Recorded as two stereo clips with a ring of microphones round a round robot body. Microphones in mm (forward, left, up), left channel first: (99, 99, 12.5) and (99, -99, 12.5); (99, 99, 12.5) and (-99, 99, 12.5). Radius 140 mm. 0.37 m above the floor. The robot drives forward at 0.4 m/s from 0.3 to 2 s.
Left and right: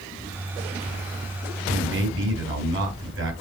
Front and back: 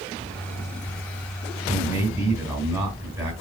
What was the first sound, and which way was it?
A man speaking, 95° right.